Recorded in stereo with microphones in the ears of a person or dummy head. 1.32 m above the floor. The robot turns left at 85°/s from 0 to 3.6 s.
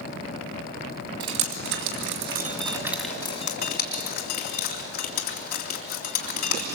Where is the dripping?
25° right (ahead or behind), 3 m; by 6.8 s 45° left (ahead or behind), 3 m.